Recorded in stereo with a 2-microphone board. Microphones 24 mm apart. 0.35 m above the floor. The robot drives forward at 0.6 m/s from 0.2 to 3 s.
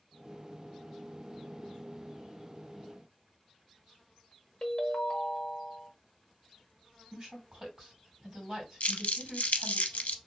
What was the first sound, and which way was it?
A ringtone, 40° left (ahead or behind).